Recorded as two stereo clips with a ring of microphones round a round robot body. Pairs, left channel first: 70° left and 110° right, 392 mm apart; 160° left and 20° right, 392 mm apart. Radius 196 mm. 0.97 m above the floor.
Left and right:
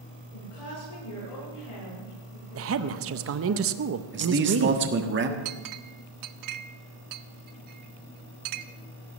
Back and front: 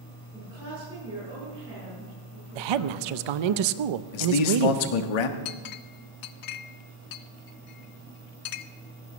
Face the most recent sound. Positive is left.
turn(degrees=-160)